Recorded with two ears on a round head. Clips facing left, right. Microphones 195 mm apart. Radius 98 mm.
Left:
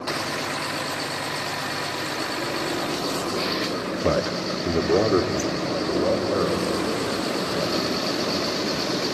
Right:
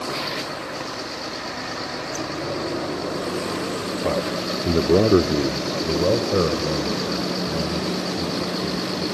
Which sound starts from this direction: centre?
A man speaking, at 4.0 s.